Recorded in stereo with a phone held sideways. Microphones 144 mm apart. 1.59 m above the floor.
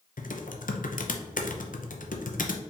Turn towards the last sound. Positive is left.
turn(degrees=70)  # may be behind; listen again after turning